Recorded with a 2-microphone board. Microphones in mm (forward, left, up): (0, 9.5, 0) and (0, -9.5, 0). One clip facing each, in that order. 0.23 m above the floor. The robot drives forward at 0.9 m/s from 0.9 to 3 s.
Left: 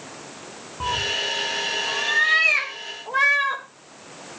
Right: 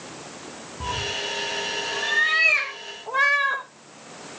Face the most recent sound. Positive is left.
turn(degrees=30)  # may be behind; listen again after turning